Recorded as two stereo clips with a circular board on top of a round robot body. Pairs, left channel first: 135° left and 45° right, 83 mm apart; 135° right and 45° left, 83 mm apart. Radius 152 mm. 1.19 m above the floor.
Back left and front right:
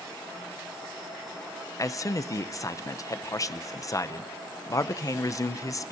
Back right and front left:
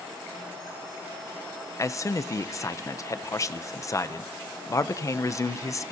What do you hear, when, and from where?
1.8 s a man speaking: straight behind, 0.7 m